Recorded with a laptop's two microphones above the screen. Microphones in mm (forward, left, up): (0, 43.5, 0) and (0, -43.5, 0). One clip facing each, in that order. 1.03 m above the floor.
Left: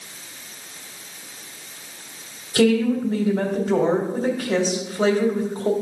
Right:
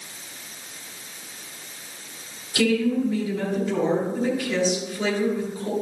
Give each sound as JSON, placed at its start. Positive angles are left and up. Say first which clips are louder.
{"t": 2.5, "sound": "a woman speaking", "louder": "left 3 dB", "side_deg": 45, "distance_m": 2.5}